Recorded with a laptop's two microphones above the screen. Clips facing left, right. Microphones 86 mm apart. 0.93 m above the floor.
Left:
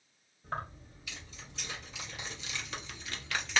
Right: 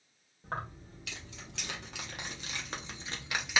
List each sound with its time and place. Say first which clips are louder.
0.4 s keys jangling: even; 85° right, 1.7 m; by 3.6 s 10° right (ahead or behind), 1.0 m